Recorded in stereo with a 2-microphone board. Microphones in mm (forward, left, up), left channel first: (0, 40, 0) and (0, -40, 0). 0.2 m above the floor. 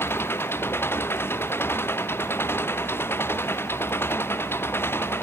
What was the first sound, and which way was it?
An engine running, 30° left (ahead or behind).